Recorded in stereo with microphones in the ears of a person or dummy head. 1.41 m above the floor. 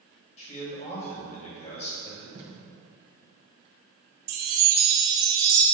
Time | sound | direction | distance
0.4 | a man speaking | 40° left (ahead or behind) | 2 m
2.4 | tape being pulled | 35° right (ahead or behind) | 1.2 m
4.3 | a chime | 60° right (ahead or behind) | 1.1 m